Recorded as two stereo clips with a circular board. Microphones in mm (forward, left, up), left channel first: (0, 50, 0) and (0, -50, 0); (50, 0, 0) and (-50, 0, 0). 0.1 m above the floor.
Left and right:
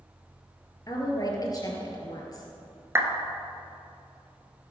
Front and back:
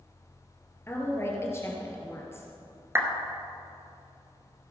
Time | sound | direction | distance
0.9 | a woman speaking | 55° left | 2 m
3.0 | a clap | 135° right | 1.3 m